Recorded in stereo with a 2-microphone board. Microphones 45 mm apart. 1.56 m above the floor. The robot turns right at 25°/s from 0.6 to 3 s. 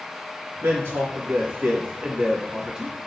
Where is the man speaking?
65° right (ahead or behind), 1.8 m; by 3.1 s 10° right (ahead or behind), 1.8 m.